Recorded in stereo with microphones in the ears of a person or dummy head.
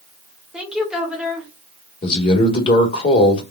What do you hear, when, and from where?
0.5 s a woman speaking: 5° right (ahead or behind), 1.2 m
2.0 s a man speaking: 35° left (ahead or behind), 1.3 m